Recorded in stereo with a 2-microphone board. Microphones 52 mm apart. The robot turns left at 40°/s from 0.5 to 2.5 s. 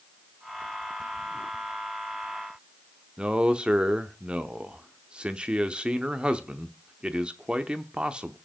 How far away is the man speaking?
About 0.7 m.